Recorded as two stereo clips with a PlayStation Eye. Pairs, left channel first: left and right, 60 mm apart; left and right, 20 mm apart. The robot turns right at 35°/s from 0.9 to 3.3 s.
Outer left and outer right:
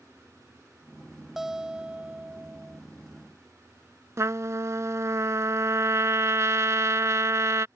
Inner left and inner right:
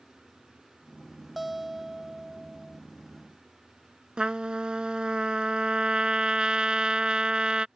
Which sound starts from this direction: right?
A trumpet, at 4.2 s.